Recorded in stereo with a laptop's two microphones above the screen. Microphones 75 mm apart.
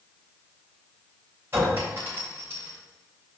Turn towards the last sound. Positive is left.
turn(degrees=-30)  # may be behind; listen again after turning